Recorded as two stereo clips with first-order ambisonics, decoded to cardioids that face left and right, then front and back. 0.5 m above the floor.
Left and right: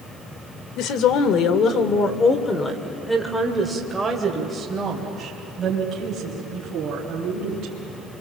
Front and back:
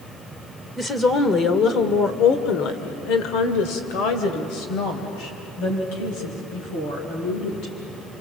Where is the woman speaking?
75° left, 1.9 m; by 7.7 s 35° right, 4.5 m.